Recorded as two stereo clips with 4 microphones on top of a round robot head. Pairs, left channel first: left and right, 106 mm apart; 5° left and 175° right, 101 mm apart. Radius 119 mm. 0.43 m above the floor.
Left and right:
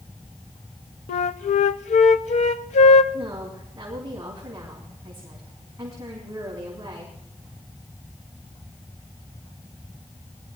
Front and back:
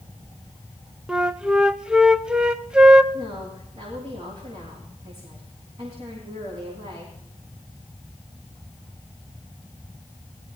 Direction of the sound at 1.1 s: 105° left.